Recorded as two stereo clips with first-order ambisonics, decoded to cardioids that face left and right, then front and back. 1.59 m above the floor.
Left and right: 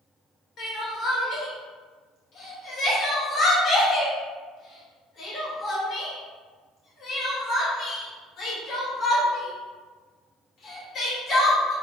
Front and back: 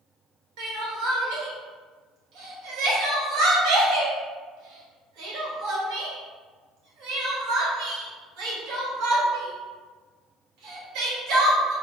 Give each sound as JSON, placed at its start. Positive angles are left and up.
{"t": 0.6, "sound": "crying", "azimuth_deg": 150, "distance_m": 0.7}